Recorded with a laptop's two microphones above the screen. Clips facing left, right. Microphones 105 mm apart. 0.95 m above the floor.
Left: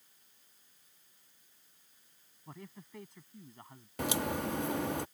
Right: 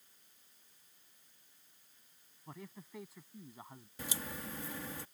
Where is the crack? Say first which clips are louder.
Left 11 dB; 70° left (ahead or behind).